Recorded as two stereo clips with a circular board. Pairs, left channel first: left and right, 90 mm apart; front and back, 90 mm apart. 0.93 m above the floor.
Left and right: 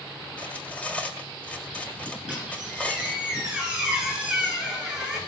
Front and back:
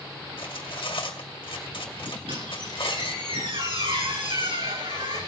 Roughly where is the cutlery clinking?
Ahead.